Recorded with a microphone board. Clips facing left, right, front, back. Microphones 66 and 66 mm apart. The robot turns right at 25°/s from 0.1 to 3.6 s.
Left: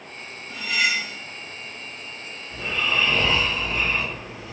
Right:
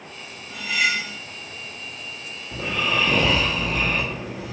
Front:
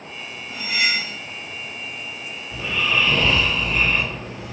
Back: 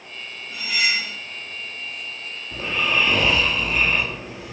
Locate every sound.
0.5 s cutlery clinking: 5° right, 0.8 m; by 1.1 s 10° left, 0.8 m
2.5 s snoring: 120° right, 0.9 m; by 4.5 s 90° right, 0.9 m